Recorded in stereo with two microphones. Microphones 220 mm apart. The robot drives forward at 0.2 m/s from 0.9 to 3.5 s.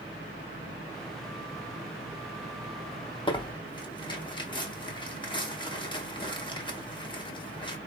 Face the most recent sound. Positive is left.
turn(degrees=20)  # may be behind; listen again after turning